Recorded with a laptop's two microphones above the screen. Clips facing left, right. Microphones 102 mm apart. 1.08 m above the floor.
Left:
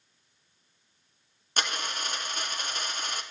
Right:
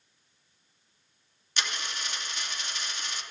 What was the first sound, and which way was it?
A dropped coin, 50° left (ahead or behind).